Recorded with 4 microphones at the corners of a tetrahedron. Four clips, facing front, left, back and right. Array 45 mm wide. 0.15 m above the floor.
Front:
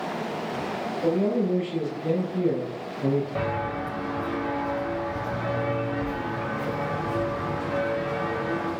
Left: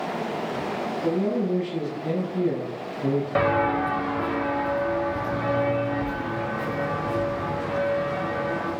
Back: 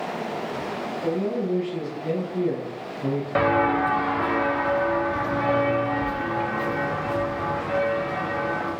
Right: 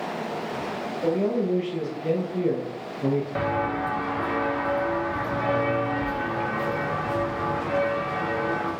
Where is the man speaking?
65° right, 4 m; by 3.2 s 85° right, 3.5 m.